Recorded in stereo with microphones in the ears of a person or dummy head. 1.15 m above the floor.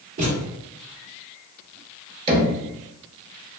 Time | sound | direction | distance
0.2 | a thud | 35° right (ahead or behind) | 0.9 m
2.3 | knocking | 25° right (ahead or behind) | 0.8 m